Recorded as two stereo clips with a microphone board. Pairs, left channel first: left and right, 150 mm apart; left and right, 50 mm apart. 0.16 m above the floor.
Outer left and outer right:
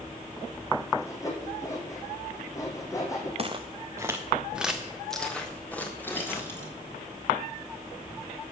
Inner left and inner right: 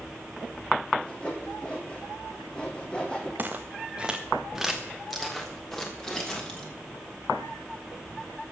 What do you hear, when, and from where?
1.0 s sawing: 20° left (ahead or behind), 2.5 m
3.4 s footsteps: 40° right (ahead or behind), 1.2 m; by 6.7 s 15° left (ahead or behind), 3.5 m